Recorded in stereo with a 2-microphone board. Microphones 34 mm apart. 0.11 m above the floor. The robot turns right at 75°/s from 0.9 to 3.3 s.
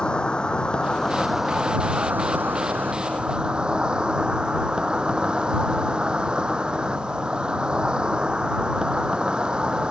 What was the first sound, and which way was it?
An insect, 155° left.